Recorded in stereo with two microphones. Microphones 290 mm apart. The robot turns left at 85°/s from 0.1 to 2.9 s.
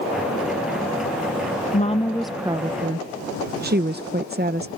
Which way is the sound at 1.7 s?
45° left.